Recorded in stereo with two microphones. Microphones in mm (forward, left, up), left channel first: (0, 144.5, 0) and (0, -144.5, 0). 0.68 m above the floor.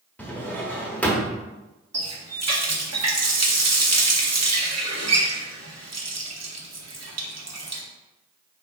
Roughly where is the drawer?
Centre.